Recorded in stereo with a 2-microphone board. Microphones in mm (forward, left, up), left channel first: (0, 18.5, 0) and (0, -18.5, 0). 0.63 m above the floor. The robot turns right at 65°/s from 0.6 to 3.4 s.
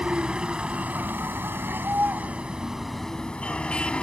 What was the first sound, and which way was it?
A vehicle, 150° right.